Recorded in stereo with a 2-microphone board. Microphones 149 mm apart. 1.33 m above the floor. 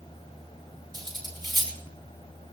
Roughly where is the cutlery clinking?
Right.